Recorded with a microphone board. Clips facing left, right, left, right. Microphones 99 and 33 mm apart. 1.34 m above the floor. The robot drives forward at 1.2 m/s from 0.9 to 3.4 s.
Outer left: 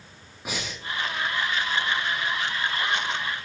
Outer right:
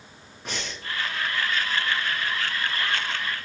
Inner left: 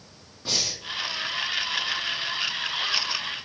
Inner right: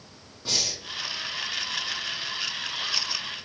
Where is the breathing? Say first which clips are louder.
Outer left 1 dB, inner left 1 dB; 10° left (ahead or behind), 1.6 m.